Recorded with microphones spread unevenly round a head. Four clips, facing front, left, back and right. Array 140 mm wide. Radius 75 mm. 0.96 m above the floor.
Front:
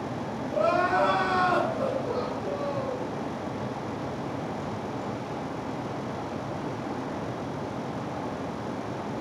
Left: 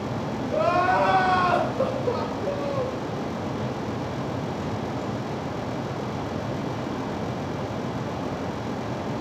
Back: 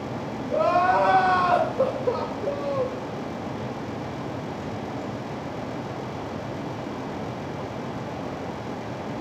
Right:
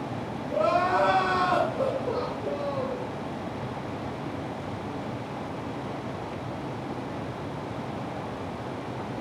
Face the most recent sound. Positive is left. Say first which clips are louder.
# left 2 dB, back 4 dB
turn(degrees=160)